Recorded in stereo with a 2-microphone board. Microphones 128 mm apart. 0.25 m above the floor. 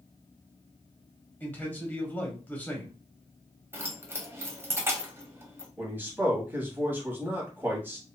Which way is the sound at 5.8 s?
15° right (ahead or behind).